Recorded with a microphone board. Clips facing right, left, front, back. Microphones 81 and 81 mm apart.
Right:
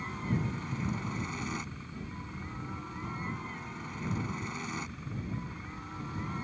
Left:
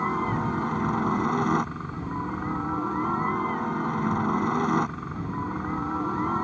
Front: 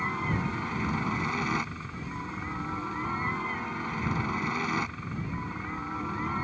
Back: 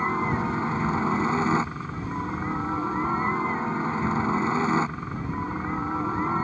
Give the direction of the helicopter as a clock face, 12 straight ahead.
8 o'clock.